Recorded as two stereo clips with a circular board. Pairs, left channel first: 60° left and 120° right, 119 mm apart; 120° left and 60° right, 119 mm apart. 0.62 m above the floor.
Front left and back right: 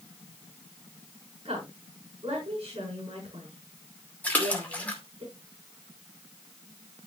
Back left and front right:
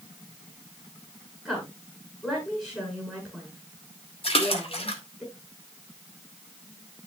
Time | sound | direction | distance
1.4 | a woman speaking | 160° right | 6 m
4.2 | a splash | 135° left | 2 m